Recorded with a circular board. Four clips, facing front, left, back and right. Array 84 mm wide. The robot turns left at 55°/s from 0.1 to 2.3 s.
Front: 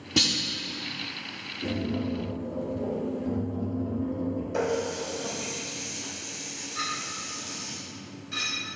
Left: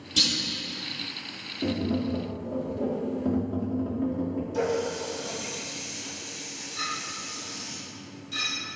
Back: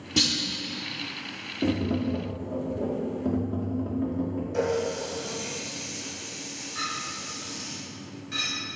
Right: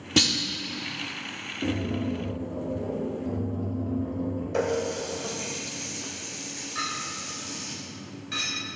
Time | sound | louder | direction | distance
0.2 | a clunk | right 7 dB, even | 75° right | 1.2 m
1.6 | tapping | left 1 dB, back 4 dB | 170° left | 1.5 m
4.5 | a running tap | right 1 dB, back 2 dB | 75° right | 2 m
6.8 | a clink | right 1 dB, even | 95° right | 1.9 m